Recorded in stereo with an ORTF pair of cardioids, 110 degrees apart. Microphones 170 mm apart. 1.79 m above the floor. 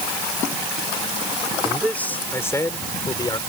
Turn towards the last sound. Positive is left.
turn(degrees=25)